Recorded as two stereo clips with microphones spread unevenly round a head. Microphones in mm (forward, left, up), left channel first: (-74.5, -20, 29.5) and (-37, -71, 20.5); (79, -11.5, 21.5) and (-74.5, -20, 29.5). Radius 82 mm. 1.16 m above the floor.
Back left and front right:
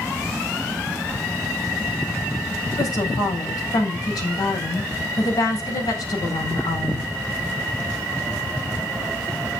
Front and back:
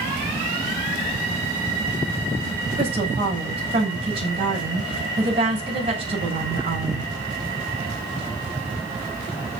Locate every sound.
2.8 s a woman speaking: 125° left, 8 m